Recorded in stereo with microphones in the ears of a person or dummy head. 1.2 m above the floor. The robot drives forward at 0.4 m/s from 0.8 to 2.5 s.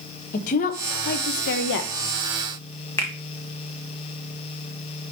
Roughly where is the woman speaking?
Left.